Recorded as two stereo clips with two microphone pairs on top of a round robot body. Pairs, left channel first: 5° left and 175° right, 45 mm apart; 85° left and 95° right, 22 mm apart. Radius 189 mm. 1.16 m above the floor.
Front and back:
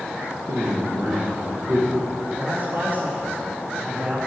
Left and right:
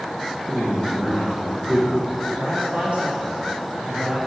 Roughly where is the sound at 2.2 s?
Behind right.